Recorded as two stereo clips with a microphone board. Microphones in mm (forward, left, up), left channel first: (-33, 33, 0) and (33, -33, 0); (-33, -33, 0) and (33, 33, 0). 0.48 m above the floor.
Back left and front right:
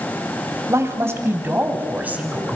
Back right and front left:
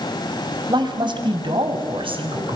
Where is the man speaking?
10° left, 3 m; by 2.6 s 30° left, 4 m.